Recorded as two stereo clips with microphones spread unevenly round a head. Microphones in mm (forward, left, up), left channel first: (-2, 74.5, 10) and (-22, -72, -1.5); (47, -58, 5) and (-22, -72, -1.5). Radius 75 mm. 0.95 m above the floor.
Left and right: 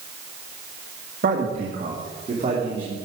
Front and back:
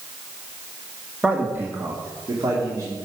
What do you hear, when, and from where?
1.2 s a man speaking: 100° right, 1.5 m; by 2.9 s 145° right, 3.5 m